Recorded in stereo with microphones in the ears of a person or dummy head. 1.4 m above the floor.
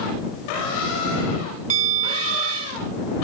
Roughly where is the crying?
No crying in this recording.